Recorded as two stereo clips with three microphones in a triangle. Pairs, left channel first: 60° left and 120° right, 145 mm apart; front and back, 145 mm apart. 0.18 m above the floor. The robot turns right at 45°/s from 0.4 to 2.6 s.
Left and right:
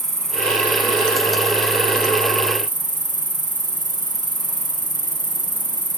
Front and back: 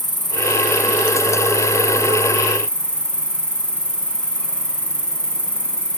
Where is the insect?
20° right, 1.1 m; by 6.0 s 75° left, 1.1 m.